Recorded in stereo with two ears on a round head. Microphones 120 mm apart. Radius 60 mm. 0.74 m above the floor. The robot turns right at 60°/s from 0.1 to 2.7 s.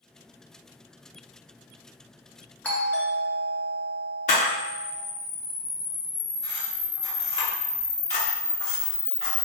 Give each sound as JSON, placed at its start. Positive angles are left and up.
{"t": 2.6, "sound": "a doorbell", "side_deg": 15, "distance_m": 0.9}
{"t": 4.3, "sound": "a camera shutter", "side_deg": 65, "distance_m": 1.1}